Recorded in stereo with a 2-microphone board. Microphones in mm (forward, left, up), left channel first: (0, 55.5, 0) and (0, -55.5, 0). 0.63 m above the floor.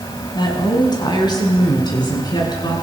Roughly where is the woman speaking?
Left.